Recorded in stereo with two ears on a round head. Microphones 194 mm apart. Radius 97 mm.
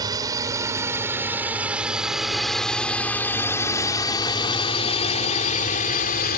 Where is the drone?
20° right (ahead or behind); by 6.4 s 45° left (ahead or behind).